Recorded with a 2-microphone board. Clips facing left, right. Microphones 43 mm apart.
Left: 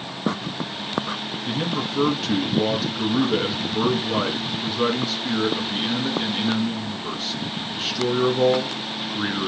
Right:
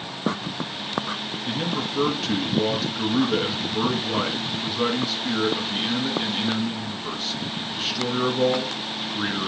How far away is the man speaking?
About 1.6 m.